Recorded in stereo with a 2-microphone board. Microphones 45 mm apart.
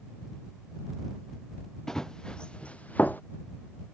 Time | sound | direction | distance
1.9 | running footsteps | 15° left (ahead or behind) | ?